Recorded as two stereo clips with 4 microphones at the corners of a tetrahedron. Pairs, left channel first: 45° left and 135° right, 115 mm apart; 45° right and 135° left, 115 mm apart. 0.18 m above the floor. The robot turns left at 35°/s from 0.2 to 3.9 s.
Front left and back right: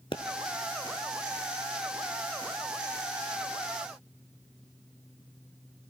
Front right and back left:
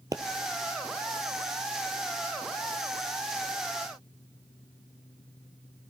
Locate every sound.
0.1 s a pop: 80° left, 0.8 m